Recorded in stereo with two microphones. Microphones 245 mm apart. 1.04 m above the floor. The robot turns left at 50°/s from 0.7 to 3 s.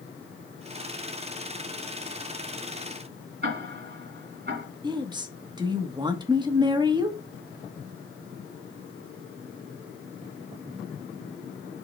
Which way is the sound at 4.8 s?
20° right (ahead or behind).